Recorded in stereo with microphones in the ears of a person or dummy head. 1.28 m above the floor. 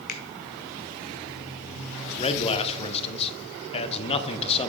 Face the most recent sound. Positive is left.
turn(degrees=30)  # may be behind; listen again after turning